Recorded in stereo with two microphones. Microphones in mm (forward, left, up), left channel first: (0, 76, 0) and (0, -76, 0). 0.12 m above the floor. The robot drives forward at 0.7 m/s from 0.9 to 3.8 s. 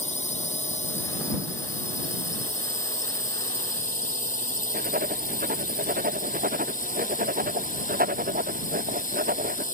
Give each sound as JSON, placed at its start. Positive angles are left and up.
{"t": 0.0, "sound": "a drone", "side_deg": 50}
{"t": 4.7, "sound": "writing", "side_deg": -65}